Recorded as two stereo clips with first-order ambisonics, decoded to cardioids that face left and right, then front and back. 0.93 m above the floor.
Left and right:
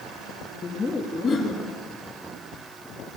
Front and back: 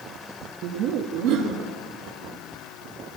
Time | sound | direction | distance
0.6 | laughter | 155° left | 0.7 m